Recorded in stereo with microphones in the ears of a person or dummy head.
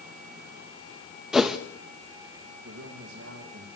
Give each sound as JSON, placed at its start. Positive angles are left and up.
{"t": 1.3, "sound": "a whoosh", "side_deg": 0, "distance_m": 1.4}
{"t": 2.6, "sound": "a man speaking", "side_deg": -80, "distance_m": 2.5}